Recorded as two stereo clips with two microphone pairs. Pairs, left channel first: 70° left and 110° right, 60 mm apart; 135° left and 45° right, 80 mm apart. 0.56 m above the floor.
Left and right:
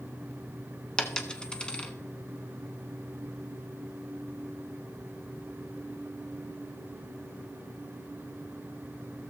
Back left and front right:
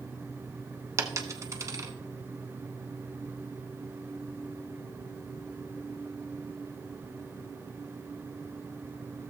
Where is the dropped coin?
Straight ahead, 0.8 m.